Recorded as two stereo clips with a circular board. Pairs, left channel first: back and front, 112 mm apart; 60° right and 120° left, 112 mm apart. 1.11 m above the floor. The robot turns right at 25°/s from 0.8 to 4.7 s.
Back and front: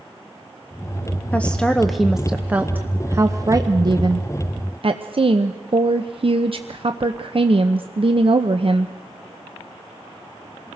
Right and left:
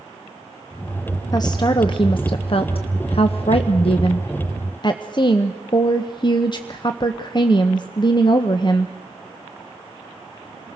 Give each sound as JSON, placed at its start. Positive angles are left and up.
{"t": 1.3, "sound": "a woman speaking", "azimuth_deg": -105, "distance_m": 0.9}